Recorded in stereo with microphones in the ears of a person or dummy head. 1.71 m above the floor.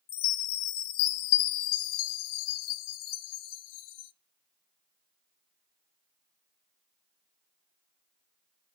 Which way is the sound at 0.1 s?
55° left (ahead or behind).